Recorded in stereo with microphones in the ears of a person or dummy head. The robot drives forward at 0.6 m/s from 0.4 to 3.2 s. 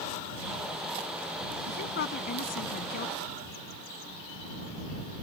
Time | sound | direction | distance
1.7 | a woman speaking | 60° left (ahead or behind) | ?